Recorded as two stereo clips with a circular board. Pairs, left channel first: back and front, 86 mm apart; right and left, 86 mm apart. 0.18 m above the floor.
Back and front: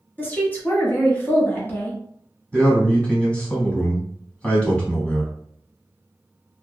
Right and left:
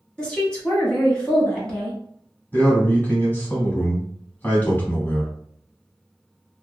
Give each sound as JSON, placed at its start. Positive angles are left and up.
{"t": 0.2, "sound": "a woman speaking", "azimuth_deg": -155, "distance_m": 1.0}
{"t": 2.5, "sound": "a man speaking", "azimuth_deg": -125, "distance_m": 1.1}